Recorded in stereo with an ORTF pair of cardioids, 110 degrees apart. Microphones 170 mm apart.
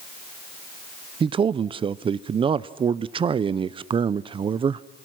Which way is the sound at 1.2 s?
30° right.